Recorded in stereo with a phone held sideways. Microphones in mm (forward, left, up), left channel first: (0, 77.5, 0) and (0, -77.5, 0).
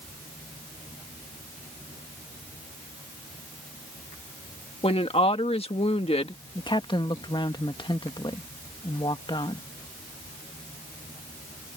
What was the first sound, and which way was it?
A woman speaking, 40° left (ahead or behind).